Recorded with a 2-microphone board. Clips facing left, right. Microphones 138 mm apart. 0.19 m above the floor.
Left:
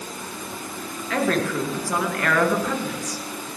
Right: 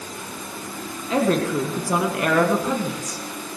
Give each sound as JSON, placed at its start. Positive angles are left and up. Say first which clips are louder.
{"t": 1.1, "sound": "a woman speaking", "louder": "right 3 dB", "side_deg": -20, "distance_m": 3.0}